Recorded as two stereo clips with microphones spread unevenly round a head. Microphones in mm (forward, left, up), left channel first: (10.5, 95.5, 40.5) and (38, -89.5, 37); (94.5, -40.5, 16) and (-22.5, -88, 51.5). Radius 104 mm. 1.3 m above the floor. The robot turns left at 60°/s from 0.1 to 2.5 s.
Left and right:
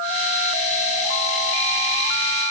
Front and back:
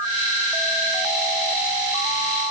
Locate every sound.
Only background noise.